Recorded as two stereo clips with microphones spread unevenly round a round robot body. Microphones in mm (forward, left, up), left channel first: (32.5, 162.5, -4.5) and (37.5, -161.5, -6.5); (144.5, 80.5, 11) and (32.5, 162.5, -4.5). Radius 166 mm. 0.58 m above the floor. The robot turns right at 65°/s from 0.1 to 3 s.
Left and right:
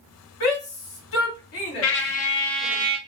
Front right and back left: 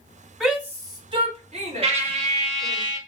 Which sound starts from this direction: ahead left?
A shout, at 0.4 s.